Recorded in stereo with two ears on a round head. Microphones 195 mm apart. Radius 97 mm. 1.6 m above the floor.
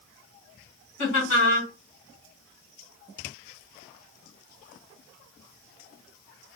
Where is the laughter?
55° left (ahead or behind), 1.8 m.